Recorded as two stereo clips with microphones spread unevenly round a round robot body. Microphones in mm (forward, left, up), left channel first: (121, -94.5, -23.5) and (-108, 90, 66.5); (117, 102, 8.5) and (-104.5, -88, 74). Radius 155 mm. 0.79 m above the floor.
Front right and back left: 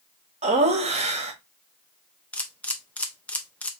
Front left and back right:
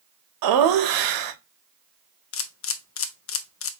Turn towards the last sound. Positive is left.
turn(degrees=35)